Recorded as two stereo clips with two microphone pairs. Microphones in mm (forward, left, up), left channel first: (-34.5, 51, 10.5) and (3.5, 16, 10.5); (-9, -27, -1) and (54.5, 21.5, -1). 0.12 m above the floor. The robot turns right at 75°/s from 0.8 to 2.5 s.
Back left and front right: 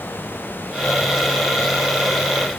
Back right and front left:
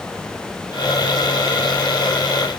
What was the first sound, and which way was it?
Only background noise.